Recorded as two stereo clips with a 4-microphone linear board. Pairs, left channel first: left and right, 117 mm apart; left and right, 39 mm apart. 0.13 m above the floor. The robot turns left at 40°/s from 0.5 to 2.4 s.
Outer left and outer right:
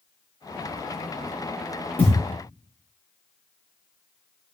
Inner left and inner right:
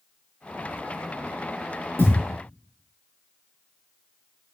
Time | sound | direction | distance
2.0 | a thud | 85° left | 5.5 m